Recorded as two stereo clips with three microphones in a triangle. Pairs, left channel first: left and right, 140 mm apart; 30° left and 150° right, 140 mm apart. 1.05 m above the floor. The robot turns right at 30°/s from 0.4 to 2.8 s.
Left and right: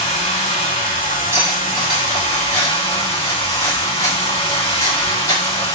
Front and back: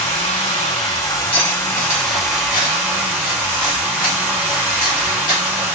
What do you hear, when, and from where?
0.0 s running water: 65° left, 1.5 m; by 5.8 s 135° left, 1.5 m
1.3 s cutlery clinking: 20° right, 1.1 m; by 5.4 s 25° left, 1.1 m